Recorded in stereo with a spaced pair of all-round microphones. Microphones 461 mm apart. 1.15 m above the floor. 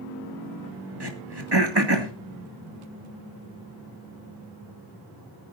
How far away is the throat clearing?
About 1.8 m.